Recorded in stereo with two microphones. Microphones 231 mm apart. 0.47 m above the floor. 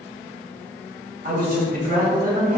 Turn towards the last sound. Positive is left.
turn(degrees=-40)  # may be behind; listen again after turning